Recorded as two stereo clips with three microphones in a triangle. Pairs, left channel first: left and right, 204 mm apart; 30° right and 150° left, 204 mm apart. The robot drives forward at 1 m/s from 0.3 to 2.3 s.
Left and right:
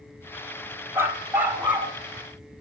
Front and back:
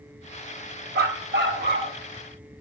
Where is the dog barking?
170° right, 1.1 m; by 1.9 s 175° right, 2 m.